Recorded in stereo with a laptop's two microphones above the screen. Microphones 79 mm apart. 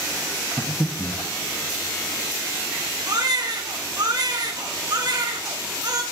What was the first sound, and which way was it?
Breathing, 10° left (ahead or behind).